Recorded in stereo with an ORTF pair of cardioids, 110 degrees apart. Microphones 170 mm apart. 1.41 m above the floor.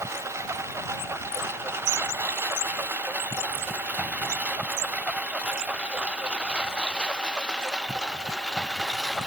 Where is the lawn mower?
15° right; by 9.3 s straight ahead.